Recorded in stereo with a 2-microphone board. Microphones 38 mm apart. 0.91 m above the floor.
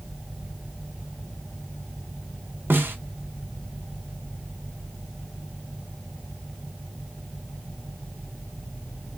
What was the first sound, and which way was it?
A snare drum, 65° right (ahead or behind).